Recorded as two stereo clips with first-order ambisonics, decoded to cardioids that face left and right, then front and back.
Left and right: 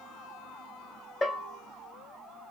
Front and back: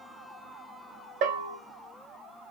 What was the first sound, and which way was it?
A bell, 165° left.